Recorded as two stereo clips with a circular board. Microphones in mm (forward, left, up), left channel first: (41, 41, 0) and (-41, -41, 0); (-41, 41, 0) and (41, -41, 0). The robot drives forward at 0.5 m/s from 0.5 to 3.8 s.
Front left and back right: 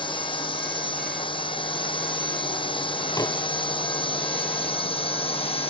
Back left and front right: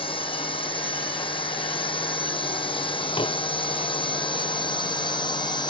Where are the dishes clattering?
100° left.